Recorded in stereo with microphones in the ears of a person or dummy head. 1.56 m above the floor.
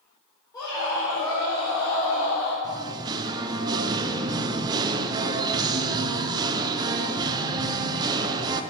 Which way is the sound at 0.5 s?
20° left (ahead or behind).